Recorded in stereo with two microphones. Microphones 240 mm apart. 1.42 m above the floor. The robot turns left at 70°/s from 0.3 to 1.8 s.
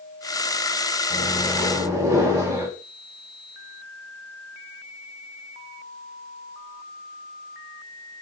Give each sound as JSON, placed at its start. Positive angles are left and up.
{"t": 1.1, "sound": "a microwave", "azimuth_deg": 35, "distance_m": 2.5}